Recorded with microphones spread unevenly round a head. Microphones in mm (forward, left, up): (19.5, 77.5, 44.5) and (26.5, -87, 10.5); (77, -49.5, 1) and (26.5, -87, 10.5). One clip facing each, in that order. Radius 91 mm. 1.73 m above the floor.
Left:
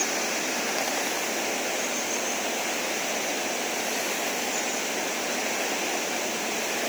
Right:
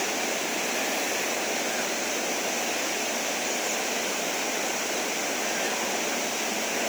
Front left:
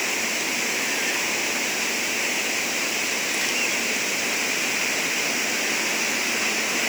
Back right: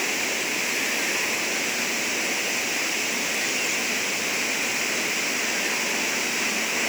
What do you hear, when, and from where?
Only background noise.